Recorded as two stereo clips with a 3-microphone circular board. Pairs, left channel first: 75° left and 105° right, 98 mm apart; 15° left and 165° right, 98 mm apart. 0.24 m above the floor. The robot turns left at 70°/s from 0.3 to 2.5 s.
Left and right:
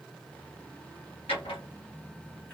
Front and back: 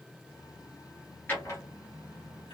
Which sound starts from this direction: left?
A drawer, at 1.3 s.